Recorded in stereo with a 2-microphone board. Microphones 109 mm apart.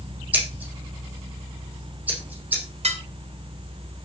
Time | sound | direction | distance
0.3 | scissors | 15° right (ahead or behind) | 5.5 m
2.8 | dishes clattering | 80° right | 2.5 m